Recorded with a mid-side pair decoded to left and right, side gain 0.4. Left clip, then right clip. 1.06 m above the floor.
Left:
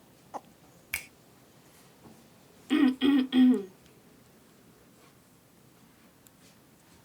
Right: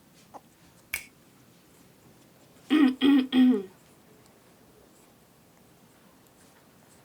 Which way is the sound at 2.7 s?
20° right.